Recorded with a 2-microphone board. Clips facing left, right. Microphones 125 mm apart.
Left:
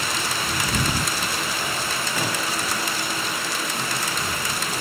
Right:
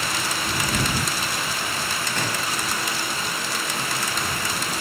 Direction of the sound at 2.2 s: 10° left (ahead or behind).